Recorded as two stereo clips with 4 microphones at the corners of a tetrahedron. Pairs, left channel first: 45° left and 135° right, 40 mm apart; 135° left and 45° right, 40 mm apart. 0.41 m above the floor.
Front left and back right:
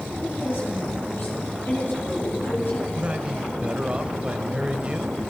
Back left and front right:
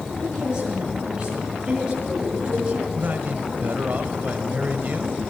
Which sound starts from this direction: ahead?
A woman speaking, at 0.2 s.